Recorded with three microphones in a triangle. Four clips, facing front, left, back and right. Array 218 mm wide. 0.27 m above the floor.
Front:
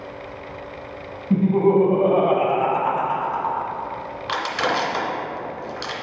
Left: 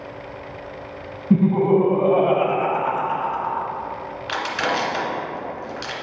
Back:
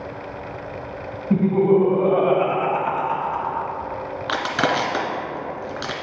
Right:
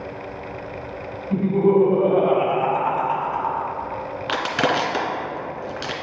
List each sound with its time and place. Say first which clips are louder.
1.3 s laughter: left 1 dB, even; 85° left, 1.6 m; by 3.7 s 55° right, 2 m
4.3 s crushing: right 2 dB, back 1 dB; 125° right, 1.8 m